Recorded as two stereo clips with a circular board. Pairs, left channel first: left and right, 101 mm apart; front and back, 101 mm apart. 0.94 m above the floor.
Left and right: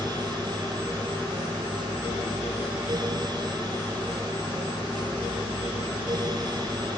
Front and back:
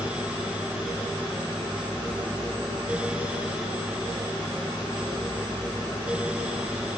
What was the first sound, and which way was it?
Only background noise.